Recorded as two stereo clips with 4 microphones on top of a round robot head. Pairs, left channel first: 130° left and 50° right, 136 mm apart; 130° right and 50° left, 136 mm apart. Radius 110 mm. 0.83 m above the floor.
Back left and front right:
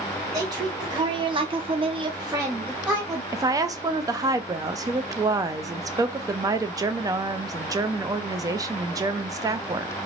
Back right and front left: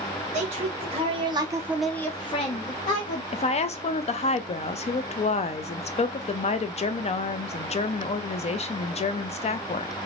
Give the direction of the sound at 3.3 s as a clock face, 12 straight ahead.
4 o'clock.